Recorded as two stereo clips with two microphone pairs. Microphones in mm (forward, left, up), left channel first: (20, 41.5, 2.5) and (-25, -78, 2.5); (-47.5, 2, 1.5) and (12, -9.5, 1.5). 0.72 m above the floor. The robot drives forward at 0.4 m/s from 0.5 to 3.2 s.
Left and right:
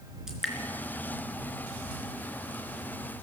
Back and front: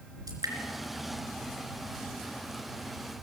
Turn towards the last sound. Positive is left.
turn(degrees=-35)